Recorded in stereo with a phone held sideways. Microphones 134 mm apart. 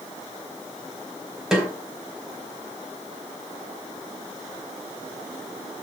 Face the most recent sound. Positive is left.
turn(degrees=-5)  # may be behind; listen again after turning